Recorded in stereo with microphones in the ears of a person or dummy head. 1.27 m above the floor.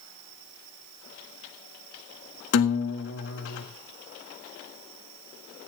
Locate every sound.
2.5 s a guitar: 70° left (ahead or behind), 1.5 m